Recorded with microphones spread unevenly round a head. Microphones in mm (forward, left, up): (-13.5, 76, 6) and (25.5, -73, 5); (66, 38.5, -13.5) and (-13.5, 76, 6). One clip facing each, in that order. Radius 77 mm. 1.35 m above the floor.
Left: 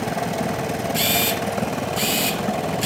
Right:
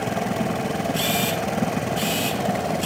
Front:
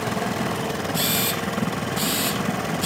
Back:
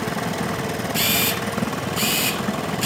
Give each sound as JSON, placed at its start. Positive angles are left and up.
{"t": 0.9, "sound": "a camera shutter", "azimuth_deg": 175, "distance_m": 4.0}